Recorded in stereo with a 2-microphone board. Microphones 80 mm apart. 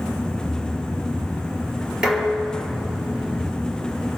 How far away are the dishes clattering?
About 4.5 m.